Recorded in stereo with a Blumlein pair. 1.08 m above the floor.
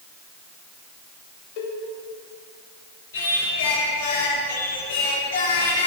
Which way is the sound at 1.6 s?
45° left.